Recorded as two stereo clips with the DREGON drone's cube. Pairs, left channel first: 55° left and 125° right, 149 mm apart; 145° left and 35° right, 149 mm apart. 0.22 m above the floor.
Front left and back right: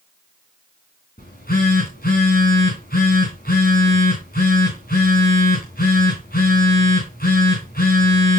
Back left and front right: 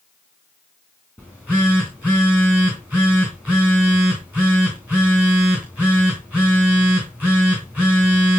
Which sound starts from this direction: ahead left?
A phone buzzing, at 1.2 s.